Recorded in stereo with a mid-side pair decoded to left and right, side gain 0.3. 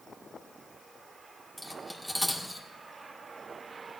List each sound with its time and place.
1.6 s cutlery clinking: straight ahead, 1.9 m